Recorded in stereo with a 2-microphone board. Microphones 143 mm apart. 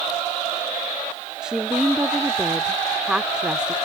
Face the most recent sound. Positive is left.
turn(degrees=-5)  # may be behind; listen again after turning